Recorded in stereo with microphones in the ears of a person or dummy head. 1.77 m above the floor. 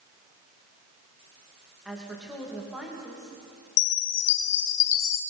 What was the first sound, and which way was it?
A woman speaking, centre (ahead or behind).